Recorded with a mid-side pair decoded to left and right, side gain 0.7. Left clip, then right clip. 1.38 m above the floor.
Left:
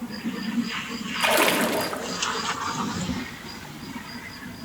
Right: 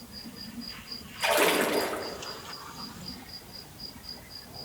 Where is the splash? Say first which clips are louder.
Left 3 dB; 25° left, 3.5 m.